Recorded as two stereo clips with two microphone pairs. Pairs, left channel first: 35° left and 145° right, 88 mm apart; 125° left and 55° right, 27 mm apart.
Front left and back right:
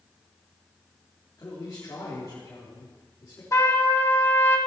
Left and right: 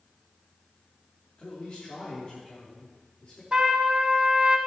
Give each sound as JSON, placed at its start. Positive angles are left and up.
{"t": 1.4, "sound": "a man speaking", "azimuth_deg": 85, "distance_m": 3.5}
{"t": 3.5, "sound": "a trumpet", "azimuth_deg": -5, "distance_m": 1.7}